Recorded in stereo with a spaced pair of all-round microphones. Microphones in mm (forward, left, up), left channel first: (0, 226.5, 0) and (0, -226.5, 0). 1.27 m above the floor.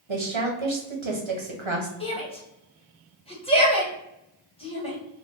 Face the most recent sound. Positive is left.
turn(degrees=10)  # may be behind; listen again after turning